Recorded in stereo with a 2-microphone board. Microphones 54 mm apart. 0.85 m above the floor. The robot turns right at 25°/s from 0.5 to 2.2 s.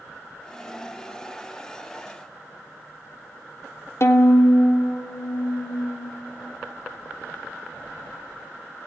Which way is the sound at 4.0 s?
55° left (ahead or behind).